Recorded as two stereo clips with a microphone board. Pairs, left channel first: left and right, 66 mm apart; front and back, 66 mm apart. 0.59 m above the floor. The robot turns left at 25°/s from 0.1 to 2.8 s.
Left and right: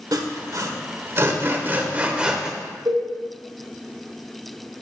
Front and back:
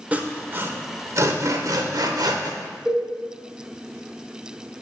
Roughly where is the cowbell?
Right.